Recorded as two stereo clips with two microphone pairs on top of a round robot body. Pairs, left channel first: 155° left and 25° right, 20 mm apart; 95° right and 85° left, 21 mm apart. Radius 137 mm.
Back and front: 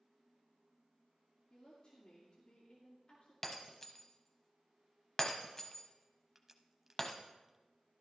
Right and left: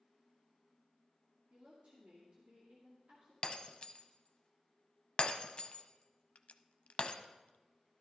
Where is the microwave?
No microwave in this recording.